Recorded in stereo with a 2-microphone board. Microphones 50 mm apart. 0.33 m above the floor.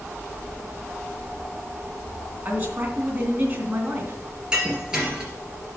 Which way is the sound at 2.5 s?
35° right (ahead or behind).